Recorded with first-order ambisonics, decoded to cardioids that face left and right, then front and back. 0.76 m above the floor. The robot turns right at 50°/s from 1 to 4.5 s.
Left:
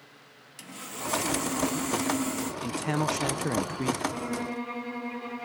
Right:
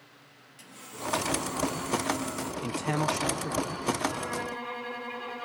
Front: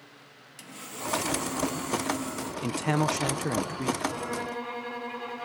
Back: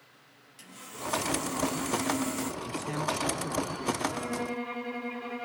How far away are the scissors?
No scissors in this recording.